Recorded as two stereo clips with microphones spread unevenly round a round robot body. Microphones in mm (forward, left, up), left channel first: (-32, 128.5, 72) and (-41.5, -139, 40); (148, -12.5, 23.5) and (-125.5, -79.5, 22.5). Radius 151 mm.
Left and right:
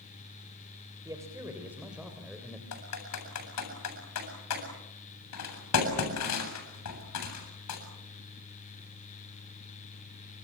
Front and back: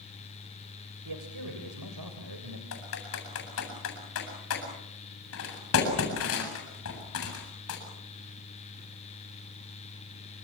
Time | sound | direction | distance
1.1 | a man speaking | 170° right | 3.5 m
2.7 | typing on a keyboard | 60° left | 8 m